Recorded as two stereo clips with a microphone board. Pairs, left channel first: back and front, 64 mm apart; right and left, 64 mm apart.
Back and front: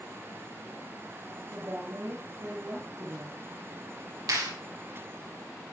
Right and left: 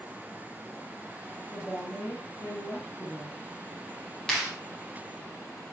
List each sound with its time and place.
1.5 s a woman speaking: 35° right, 7 m
4.3 s a clap: 10° right, 8.5 m